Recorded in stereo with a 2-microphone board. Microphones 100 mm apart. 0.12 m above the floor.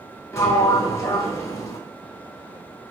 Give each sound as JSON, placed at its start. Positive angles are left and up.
{"t": 0.3, "sound": "a sliding door", "side_deg": 30, "distance_m": 0.5}